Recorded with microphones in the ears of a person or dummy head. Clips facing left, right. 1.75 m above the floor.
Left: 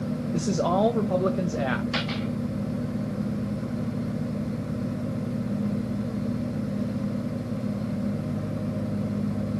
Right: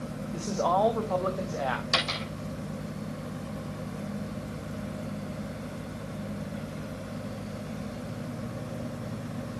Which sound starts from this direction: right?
A dropped coin, at 1.9 s.